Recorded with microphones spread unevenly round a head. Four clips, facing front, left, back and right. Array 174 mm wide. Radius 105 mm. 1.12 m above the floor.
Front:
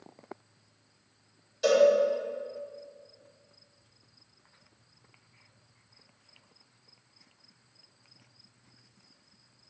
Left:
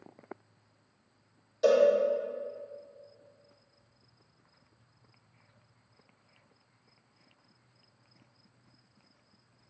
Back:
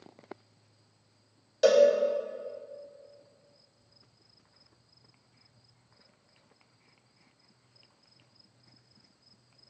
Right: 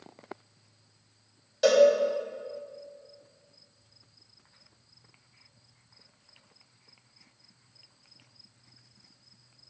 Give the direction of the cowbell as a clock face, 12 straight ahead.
5 o'clock.